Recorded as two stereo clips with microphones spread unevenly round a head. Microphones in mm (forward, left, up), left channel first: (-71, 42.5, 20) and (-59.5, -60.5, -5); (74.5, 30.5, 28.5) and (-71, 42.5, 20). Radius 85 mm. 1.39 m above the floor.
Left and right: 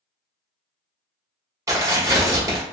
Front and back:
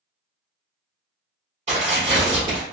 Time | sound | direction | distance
1.7 | tearing paper | 145° right | 1.3 m